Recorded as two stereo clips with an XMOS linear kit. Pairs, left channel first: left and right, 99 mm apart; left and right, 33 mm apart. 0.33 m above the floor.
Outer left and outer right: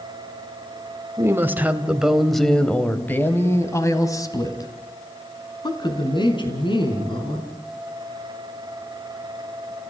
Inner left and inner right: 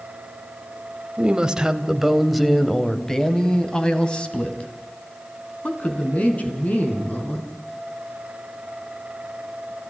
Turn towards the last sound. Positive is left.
turn(degrees=55)  # may be behind; listen again after turning